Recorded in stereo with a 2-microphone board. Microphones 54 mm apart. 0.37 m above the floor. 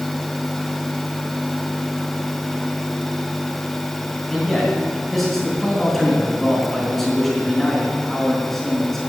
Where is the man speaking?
Centre (ahead or behind), 3.5 m.